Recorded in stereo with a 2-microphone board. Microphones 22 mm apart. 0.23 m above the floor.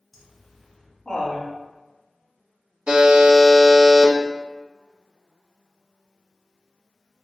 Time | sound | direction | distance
0.1 | laughter | 5° right (ahead or behind) | 1.7 m
2.9 | a buzzer | 55° right (ahead or behind) | 0.9 m